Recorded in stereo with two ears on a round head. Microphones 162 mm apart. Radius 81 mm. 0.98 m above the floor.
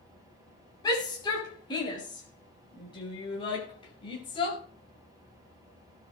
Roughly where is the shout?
Left.